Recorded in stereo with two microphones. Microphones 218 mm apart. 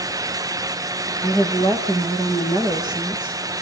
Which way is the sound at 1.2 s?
15° right (ahead or behind).